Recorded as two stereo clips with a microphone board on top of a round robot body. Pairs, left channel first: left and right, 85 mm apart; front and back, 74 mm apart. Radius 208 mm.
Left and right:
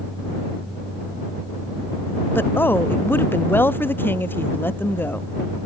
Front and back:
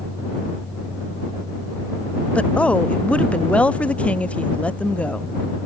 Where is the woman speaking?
55° left.